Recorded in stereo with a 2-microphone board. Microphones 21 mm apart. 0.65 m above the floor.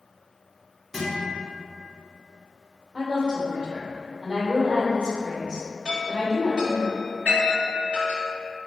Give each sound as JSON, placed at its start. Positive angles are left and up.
{"t": 0.9, "sound": "a guitar", "side_deg": -5, "distance_m": 1.2}
{"t": 2.9, "sound": "a woman speaking", "side_deg": -60, "distance_m": 1.7}
{"t": 5.8, "sound": "a chime", "side_deg": -35, "distance_m": 1.8}